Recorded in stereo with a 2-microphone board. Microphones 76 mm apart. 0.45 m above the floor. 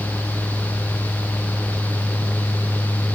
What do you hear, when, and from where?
Only background noise.